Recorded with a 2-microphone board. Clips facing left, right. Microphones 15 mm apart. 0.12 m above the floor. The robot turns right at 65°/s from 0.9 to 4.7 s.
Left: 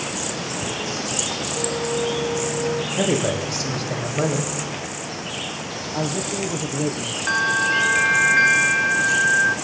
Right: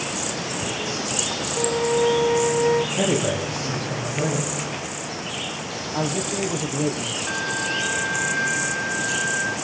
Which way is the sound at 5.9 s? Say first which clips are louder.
Even; 5° right (ahead or behind).